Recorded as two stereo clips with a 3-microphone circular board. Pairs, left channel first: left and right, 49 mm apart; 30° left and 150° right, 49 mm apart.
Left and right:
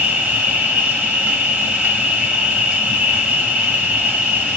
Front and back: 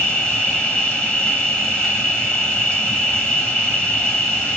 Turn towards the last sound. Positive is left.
turn(degrees=-40)